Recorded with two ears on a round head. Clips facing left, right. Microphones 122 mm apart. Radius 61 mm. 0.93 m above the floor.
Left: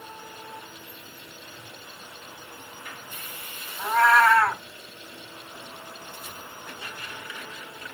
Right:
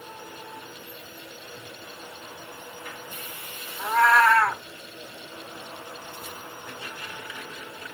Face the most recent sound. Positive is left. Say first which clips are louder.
# even
turn(degrees=0)  # may be behind; listen again after turning